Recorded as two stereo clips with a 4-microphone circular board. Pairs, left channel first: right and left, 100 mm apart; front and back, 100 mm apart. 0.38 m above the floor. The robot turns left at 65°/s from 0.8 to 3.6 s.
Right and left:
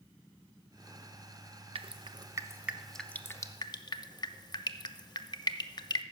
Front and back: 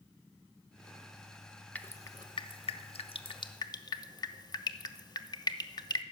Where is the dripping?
75° left, 0.6 m; by 6.0 s 45° right, 0.6 m.